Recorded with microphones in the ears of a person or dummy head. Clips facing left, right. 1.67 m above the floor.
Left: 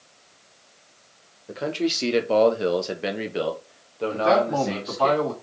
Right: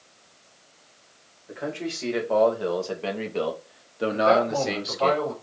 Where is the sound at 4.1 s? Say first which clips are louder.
Left 1 dB; 65° left (ahead or behind), 2 m.